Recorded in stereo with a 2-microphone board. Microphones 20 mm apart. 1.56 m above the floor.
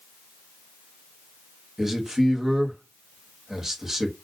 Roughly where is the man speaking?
Centre.